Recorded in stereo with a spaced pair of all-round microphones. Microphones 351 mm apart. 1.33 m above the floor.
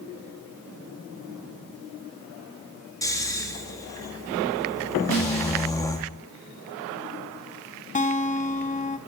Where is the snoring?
10° left (ahead or behind), 1.3 m.